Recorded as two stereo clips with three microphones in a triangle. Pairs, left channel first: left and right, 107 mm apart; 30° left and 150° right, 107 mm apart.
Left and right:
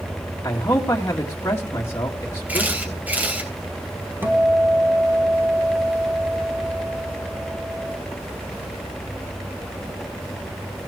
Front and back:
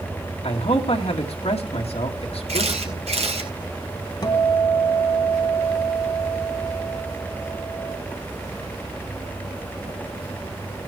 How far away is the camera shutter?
About 4 m.